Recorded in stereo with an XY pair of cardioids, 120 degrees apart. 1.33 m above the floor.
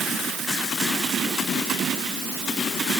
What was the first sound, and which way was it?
Only background noise.